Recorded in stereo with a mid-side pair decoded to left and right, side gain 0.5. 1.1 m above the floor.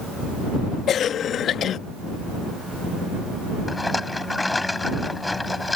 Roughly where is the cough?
Ahead left.